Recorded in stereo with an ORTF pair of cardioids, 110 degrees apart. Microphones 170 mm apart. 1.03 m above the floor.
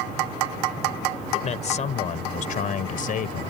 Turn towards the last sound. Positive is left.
turn(degrees=55)